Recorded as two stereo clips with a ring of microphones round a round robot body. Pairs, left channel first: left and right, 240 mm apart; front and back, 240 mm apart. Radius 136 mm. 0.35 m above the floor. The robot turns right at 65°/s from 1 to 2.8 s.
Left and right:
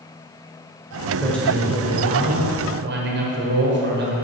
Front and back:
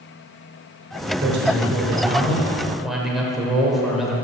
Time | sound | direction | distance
1.2 | a man speaking | 165° left | 1.7 m